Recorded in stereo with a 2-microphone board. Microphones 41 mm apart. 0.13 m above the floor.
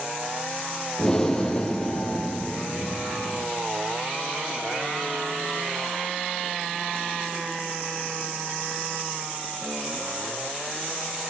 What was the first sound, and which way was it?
Breathing, 15° left (ahead or behind).